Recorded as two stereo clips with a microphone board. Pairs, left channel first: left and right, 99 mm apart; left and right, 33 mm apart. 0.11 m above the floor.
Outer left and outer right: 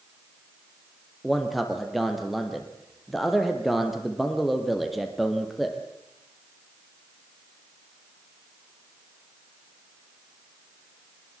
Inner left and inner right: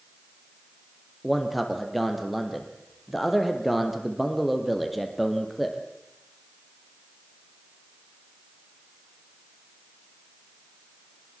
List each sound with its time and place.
1.2 s a man speaking: centre (ahead or behind), 3 m